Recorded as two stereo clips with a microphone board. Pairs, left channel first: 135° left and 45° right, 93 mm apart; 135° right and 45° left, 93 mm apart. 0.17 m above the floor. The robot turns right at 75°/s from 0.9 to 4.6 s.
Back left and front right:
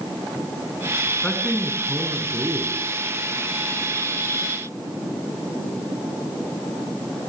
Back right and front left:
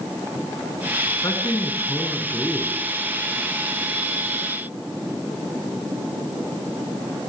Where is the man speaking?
165° right, 1.5 m; by 2.8 s 35° right, 1.5 m.